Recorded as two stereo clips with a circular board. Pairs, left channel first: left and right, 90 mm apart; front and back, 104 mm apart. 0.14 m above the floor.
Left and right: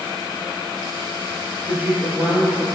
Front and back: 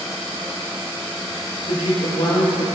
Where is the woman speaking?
20° right, 3.5 m.